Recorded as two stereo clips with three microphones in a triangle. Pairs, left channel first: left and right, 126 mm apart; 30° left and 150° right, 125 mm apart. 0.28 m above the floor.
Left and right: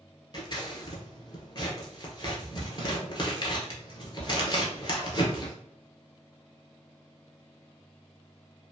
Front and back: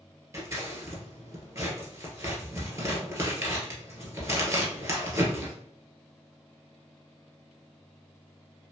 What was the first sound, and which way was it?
Scissors, 145° left.